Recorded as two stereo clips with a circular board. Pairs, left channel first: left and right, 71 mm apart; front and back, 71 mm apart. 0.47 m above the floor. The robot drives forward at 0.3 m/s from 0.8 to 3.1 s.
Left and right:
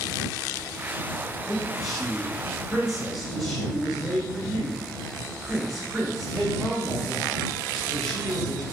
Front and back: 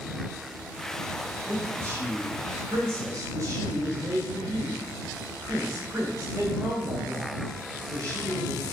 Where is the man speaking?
Straight behind, 0.8 m.